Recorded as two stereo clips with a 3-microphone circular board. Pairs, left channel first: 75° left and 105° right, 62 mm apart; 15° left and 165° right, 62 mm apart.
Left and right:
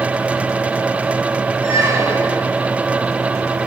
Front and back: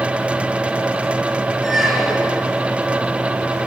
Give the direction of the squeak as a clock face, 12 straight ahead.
3 o'clock.